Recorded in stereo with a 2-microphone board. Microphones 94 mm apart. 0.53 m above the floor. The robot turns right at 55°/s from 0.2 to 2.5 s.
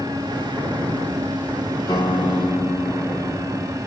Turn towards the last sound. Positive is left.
turn(degrees=165)